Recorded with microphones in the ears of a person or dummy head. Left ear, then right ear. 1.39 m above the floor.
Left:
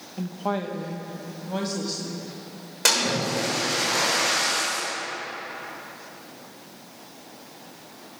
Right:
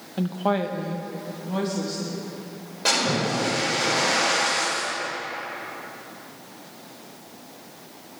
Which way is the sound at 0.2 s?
35° right (ahead or behind).